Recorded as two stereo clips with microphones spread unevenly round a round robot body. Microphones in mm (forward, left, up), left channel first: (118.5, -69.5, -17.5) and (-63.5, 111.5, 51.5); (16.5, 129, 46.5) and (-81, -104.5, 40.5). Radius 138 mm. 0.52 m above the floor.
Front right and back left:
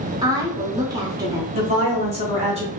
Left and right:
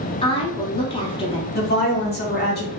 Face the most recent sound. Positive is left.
turn(degrees=60)